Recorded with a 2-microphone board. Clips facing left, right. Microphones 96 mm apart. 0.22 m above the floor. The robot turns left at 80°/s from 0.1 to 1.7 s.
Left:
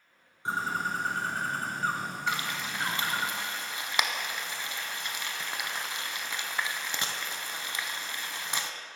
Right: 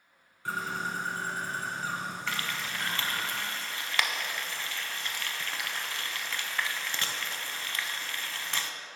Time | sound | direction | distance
0.5 | a bird | 160° left | 1.0 m
2.3 | frying | 20° left (ahead or behind) | 0.5 m